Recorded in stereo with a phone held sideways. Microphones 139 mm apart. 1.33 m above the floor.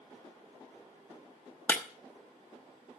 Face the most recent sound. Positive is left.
turn(degrees=10)  # may be behind; listen again after turning